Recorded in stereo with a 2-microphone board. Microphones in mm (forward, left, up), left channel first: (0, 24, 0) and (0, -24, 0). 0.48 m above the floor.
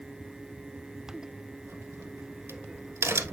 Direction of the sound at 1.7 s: 75° right (ahead or behind).